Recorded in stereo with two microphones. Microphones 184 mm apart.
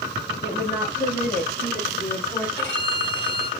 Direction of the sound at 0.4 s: 45° left (ahead or behind).